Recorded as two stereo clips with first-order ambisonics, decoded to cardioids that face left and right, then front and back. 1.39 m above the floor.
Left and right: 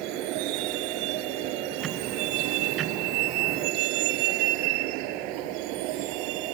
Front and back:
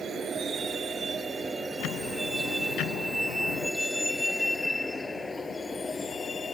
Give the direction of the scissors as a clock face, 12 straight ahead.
No scissors in this recording.